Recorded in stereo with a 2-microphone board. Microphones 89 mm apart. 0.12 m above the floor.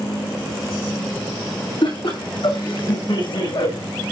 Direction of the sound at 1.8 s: 55° left (ahead or behind).